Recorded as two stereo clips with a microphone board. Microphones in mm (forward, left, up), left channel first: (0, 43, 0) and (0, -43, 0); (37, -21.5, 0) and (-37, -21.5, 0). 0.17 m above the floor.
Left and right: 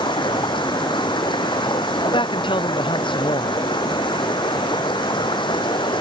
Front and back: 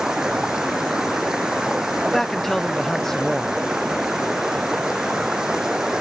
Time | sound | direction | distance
0.0 | running water | 100° left | ?
2.0 | a man speaking | 85° left | ?